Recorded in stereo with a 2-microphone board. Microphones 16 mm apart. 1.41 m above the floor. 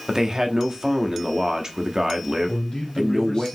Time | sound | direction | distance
0.1 | a man speaking | 40° right (ahead or behind) | 0.9 m
2.5 | a man speaking | 80° left | 2.5 m